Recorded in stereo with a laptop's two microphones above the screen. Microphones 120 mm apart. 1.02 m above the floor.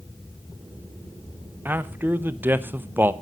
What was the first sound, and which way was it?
A man speaking, 15° right (ahead or behind).